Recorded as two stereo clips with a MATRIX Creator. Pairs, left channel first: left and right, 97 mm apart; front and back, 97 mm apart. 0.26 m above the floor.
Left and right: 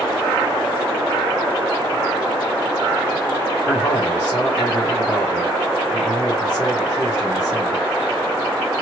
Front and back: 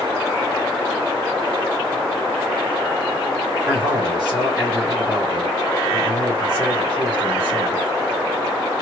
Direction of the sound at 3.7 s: 165° left.